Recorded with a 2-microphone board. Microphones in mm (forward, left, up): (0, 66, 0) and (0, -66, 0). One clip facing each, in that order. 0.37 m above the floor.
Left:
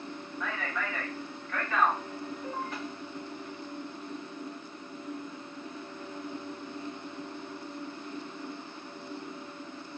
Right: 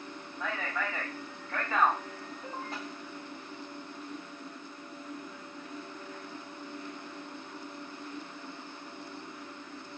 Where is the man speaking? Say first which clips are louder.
Right 1 dB; 35° right (ahead or behind), 1.9 m.